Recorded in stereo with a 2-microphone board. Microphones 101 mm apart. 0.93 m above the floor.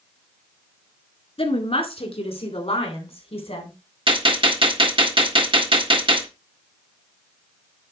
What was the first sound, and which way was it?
A woman speaking, 65° left (ahead or behind).